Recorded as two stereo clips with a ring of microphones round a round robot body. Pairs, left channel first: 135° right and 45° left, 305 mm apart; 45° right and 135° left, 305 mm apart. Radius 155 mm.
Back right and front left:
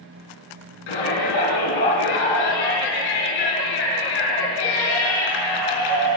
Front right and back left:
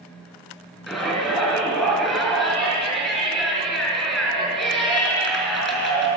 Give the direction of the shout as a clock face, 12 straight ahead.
4 o'clock.